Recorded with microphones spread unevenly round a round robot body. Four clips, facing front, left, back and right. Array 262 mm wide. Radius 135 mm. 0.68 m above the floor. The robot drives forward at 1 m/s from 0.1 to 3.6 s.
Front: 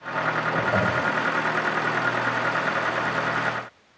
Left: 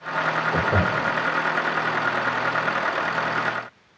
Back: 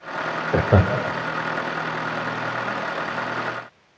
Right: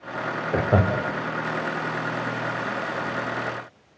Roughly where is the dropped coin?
No dropped coin in this recording.